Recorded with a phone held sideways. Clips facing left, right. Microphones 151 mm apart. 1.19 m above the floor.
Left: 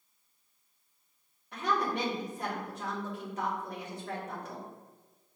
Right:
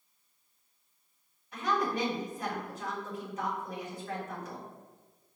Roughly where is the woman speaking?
Left.